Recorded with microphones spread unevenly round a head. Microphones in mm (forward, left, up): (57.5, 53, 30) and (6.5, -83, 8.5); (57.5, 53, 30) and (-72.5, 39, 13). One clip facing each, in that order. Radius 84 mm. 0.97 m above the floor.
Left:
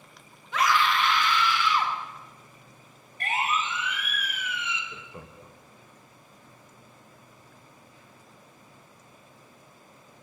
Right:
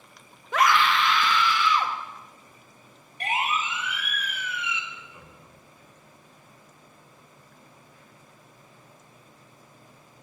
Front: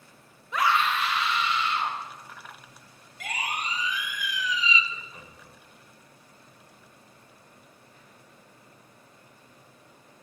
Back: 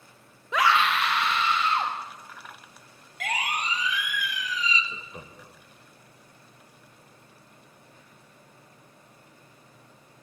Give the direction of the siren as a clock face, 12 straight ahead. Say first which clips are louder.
Right 1 dB, back 3 dB; 6 o'clock.